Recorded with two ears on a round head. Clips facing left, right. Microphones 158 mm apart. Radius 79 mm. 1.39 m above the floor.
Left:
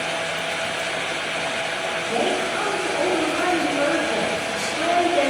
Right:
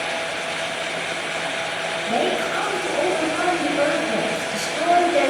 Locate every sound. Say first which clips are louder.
2.1 s a woman speaking: right 1 dB; 75° right (ahead or behind), 1.8 m